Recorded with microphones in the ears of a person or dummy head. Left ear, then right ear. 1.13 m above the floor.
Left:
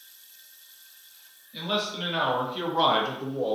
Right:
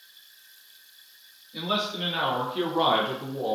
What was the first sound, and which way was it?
A man speaking, 10° left (ahead or behind).